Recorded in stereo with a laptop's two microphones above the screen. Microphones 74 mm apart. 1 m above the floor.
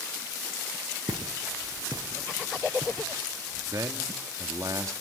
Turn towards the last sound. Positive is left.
turn(degrees=-50)  # may be behind; listen again after turning